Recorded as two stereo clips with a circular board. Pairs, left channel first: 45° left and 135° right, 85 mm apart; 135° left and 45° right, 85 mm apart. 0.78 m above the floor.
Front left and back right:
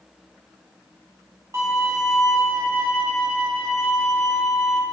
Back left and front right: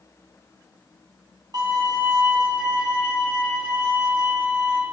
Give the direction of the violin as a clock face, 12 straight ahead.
3 o'clock.